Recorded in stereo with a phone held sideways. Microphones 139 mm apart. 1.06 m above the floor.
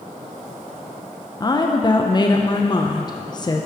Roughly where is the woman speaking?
Left.